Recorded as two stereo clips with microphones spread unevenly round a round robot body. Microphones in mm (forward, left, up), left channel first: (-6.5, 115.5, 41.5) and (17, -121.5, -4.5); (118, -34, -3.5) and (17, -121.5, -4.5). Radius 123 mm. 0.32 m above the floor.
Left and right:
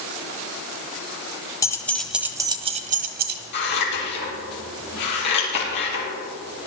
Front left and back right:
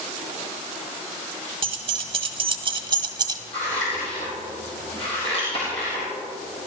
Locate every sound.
1.6 s keys jangling: 175° left, 0.9 m; by 3.4 s 90° right, 1.0 m
3.5 s scissors: 110° left, 3.5 m